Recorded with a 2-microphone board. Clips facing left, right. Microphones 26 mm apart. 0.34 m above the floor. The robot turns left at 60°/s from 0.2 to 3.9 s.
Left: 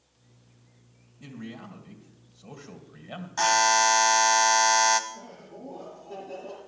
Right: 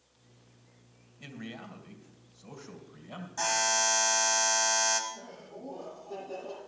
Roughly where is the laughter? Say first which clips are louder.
Left 1 dB; left.